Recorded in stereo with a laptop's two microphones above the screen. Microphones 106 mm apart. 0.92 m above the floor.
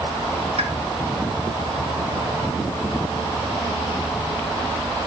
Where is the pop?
70° right (ahead or behind), 3 m.